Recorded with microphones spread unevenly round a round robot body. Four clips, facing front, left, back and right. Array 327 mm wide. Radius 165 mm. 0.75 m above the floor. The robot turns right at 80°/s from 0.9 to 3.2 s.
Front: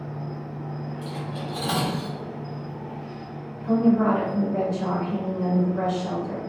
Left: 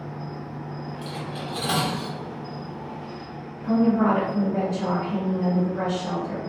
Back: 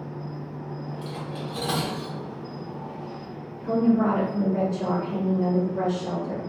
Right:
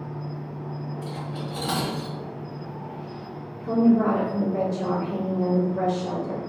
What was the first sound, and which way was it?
An insect, 30° left.